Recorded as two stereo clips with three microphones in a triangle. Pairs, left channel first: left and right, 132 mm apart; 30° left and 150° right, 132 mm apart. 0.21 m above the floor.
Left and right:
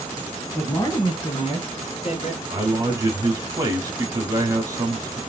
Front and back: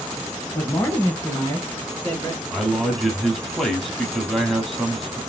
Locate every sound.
0.5 s a man speaking: 55° left, 1.0 m; by 2.4 s 100° left, 1.9 m
2.5 s a man speaking: 60° right, 1.2 m